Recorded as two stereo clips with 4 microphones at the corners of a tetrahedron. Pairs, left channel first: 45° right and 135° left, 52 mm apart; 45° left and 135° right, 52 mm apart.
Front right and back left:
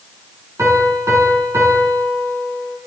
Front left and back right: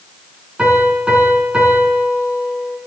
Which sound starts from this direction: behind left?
A piano, at 0.6 s.